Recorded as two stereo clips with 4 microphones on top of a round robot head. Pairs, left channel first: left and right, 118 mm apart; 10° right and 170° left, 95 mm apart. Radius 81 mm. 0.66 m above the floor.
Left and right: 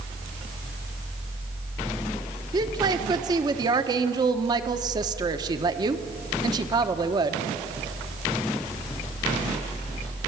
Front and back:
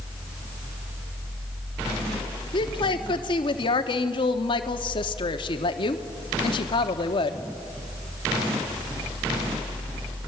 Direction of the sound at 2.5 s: 35° right.